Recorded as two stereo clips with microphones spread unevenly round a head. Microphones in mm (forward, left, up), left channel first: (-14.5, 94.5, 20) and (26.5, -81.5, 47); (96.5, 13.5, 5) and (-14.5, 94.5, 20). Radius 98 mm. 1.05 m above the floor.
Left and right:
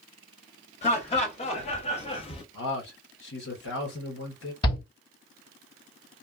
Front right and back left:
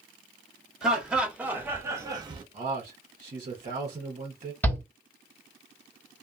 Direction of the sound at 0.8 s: 55° left.